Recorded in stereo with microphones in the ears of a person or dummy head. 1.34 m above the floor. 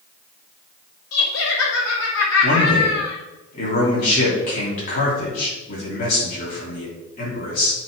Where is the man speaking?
45° left (ahead or behind), 3.5 m.